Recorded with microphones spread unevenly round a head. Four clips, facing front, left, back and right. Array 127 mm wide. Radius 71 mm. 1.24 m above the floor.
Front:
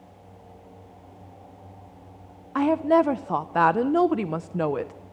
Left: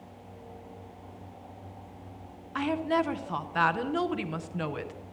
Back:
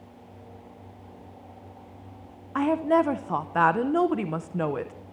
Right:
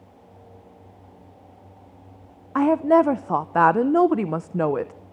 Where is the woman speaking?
75° right, 0.6 m.